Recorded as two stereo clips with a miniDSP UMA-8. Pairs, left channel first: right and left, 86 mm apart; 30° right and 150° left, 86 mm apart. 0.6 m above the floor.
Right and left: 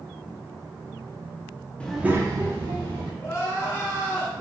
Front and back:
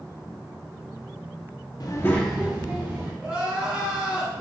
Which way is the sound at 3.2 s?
140° right.